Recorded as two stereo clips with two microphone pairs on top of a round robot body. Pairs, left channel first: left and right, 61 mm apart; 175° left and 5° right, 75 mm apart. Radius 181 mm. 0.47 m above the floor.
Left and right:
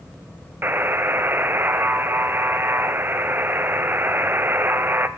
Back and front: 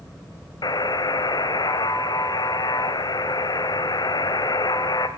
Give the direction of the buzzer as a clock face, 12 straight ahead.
5 o'clock.